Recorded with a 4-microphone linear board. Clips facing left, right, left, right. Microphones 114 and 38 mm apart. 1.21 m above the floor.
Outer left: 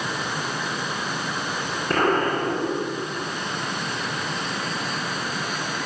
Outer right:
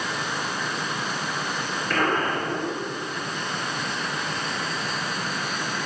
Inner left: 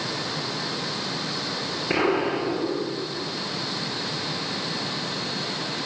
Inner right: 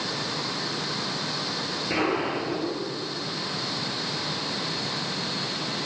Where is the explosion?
30° left (ahead or behind), 4.5 m.